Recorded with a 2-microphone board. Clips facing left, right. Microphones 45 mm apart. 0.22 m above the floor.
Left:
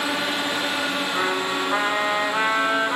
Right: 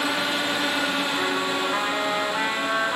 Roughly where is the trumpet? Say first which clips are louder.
Left 1 dB; left.